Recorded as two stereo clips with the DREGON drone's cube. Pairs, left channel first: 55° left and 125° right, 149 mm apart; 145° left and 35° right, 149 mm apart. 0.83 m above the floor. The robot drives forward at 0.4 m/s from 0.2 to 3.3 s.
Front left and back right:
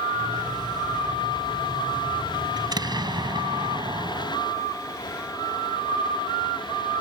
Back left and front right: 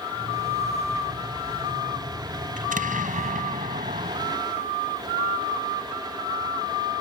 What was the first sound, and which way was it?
An explosion, 60° right.